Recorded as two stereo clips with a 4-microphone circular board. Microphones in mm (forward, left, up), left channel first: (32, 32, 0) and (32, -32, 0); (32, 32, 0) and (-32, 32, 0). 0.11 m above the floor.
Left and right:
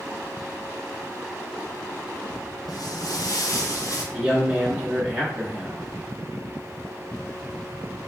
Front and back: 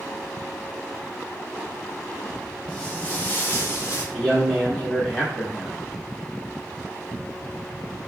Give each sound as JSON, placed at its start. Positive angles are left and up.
{"t": 2.7, "sound": "footsteps", "azimuth_deg": 80, "distance_m": 1.0}
{"t": 4.1, "sound": "a man speaking", "azimuth_deg": -60, "distance_m": 1.1}